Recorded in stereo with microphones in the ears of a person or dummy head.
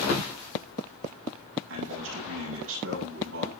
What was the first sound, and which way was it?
A man speaking, 75° right (ahead or behind).